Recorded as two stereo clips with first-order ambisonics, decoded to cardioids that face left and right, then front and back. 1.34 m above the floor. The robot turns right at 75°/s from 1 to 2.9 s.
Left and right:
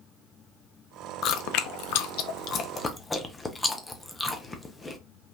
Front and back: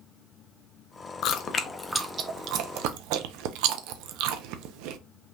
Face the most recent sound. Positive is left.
turn(degrees=165)